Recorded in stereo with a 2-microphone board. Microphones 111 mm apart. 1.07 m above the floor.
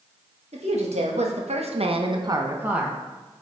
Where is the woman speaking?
75° right (ahead or behind), 1.4 m; by 3.0 s centre (ahead or behind), 0.8 m.